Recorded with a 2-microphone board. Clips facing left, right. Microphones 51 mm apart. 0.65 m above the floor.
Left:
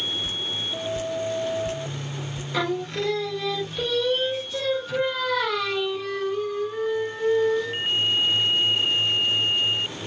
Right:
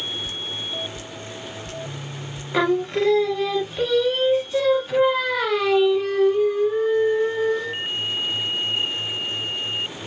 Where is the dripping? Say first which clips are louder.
Left 1 dB; 30° left (ahead or behind), 0.8 m.